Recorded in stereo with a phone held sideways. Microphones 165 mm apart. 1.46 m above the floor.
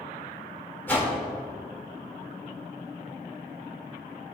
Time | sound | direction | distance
0.9 | a whoosh | 10° left (ahead or behind) | 1.8 m